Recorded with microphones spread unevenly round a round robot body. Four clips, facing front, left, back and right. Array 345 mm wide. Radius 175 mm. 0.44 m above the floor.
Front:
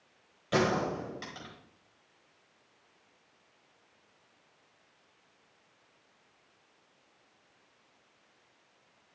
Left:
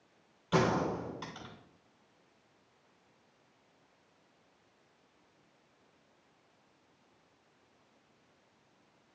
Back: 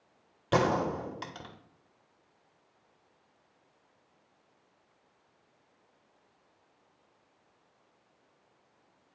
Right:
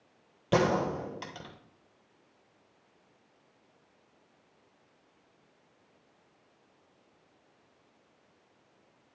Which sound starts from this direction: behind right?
A gunshot, at 0.5 s.